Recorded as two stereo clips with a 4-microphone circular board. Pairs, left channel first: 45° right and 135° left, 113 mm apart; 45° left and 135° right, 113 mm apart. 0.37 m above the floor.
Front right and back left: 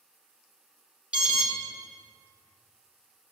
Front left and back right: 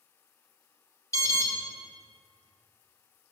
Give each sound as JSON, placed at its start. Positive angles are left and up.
{"t": 1.1, "sound": "an alarm", "azimuth_deg": 65, "distance_m": 1.0}